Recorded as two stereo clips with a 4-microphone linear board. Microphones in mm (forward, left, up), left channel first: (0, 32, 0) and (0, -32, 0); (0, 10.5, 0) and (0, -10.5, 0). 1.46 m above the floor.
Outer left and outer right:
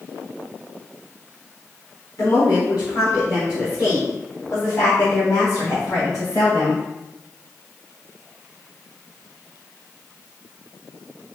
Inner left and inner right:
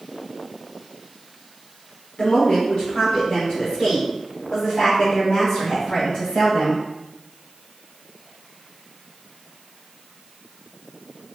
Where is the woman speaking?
65° left (ahead or behind), 1.1 m; by 6.8 s 60° left (ahead or behind), 3.5 m.